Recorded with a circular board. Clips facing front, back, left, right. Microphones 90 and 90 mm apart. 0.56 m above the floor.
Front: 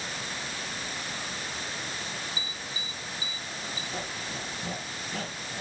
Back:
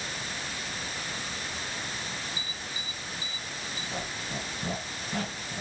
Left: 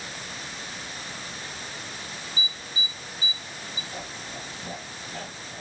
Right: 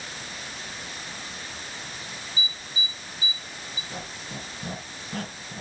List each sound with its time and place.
2.4 s an alarm: 65° left, 1.6 m
3.9 s a squeak: 115° right, 5.5 m